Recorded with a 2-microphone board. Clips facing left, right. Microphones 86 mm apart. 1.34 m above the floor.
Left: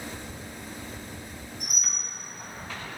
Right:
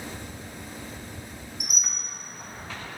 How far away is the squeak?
About 0.7 m.